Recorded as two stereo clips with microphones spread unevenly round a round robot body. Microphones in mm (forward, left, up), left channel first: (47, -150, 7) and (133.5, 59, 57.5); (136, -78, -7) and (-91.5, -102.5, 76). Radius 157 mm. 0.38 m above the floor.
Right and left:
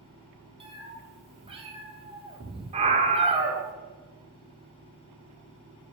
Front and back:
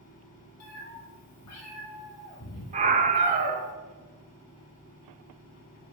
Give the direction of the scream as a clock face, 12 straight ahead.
8 o'clock.